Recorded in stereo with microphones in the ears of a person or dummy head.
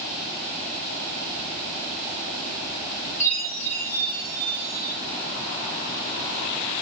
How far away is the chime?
About 3.5 m.